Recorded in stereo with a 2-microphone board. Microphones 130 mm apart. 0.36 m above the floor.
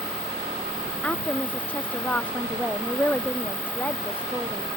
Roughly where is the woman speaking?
Centre.